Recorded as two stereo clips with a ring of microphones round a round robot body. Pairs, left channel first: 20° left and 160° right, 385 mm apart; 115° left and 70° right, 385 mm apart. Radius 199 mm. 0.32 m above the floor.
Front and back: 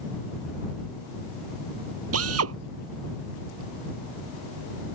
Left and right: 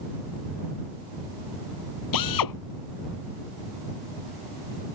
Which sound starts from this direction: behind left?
A drill, at 2.1 s.